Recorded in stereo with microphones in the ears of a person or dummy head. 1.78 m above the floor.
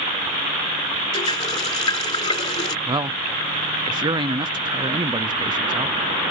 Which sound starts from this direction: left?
A running tap, at 1.1 s.